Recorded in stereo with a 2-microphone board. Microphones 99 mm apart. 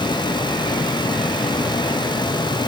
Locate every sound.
Only background noise.